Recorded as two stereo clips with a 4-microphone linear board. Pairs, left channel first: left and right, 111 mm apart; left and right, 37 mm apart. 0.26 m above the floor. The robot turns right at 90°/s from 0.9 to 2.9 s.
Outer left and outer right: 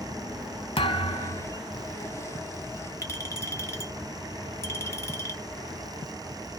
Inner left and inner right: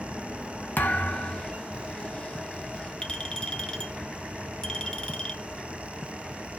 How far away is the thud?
About 0.8 m.